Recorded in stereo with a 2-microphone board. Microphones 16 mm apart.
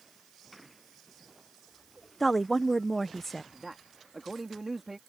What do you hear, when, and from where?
2.2 s a woman speaking: 10° left (ahead or behind)
3.5 s a man speaking: 20° right (ahead or behind)